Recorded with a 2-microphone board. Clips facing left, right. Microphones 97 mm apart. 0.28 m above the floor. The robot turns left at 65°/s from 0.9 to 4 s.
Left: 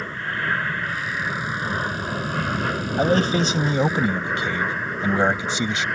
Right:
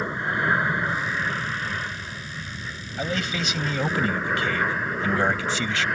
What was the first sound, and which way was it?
An aircraft, 160° right.